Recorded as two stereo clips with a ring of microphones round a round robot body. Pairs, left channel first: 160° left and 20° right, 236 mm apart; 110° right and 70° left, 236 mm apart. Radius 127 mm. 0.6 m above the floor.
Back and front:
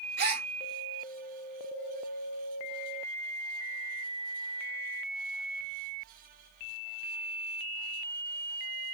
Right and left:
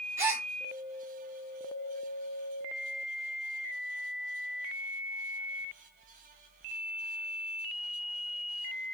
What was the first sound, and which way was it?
A gasp, 5° right.